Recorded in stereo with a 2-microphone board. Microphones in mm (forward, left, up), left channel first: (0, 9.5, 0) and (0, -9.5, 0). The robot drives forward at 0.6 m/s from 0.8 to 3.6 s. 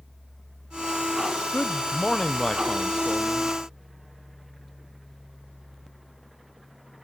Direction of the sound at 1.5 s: 60° left (ahead or behind).